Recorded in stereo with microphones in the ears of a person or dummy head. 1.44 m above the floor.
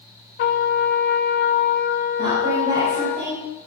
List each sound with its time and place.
0.4 s a trumpet: 60° left (ahead or behind), 1.3 m
2.2 s a woman speaking: 45° right (ahead or behind), 5 m